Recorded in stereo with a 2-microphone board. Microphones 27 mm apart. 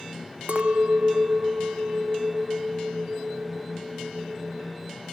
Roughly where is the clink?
Right.